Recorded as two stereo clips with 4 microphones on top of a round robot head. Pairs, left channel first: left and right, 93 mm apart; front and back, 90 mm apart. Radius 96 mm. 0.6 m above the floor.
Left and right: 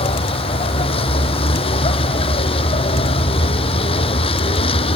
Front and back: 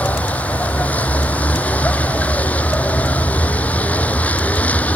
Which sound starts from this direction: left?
A vehicle, at 0.0 s.